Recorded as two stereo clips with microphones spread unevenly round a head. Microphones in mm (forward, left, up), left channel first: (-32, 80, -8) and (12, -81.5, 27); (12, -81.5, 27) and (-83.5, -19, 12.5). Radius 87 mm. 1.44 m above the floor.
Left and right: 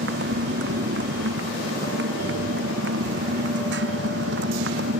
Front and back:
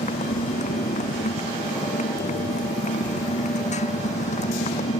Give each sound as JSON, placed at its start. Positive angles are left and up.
{"t": 0.0, "sound": "a motorcycle", "azimuth_deg": -45}